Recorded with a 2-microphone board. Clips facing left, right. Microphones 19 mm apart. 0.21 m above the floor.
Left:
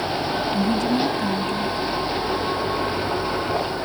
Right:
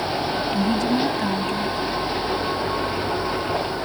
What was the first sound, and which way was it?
A woman speaking, 10° right (ahead or behind).